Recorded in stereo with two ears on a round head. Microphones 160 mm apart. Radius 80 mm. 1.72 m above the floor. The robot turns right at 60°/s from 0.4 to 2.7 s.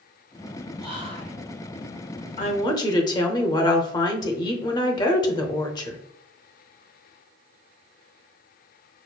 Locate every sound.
0.8 s whispering: 5° right, 2.0 m; by 1.4 s 30° left, 2.0 m
2.4 s a woman speaking: 45° left (ahead or behind), 0.8 m; by 6.0 s 25° left (ahead or behind), 0.8 m